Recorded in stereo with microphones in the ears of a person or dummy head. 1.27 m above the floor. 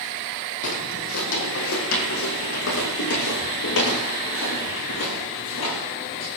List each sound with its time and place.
0.6 s footsteps: 60° left (ahead or behind), 3.5 m; by 6.3 s 75° left (ahead or behind), 8.5 m